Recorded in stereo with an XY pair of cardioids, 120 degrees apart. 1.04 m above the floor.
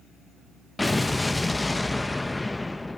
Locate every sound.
0.8 s an explosion: 15° left, 0.6 m